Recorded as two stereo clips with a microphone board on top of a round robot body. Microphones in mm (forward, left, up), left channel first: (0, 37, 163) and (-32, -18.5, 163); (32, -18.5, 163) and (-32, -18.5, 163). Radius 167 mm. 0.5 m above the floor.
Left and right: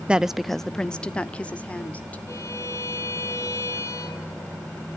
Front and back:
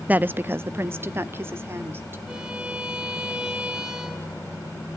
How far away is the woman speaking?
About 0.6 m.